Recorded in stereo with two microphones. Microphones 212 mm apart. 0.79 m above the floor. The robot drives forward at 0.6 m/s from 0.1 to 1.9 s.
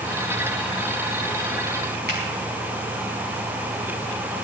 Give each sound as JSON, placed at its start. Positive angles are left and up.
{"t": 2.1, "sound": "a finger snap", "side_deg": -55, "distance_m": 4.5}